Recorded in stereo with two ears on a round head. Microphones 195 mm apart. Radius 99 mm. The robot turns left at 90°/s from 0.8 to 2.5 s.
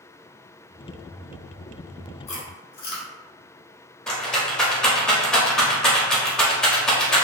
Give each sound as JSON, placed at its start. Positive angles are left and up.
{"t": 2.3, "sound": "chewing", "side_deg": 30, "distance_m": 1.0}
{"t": 4.1, "sound": "a rattle", "side_deg": 5, "distance_m": 0.6}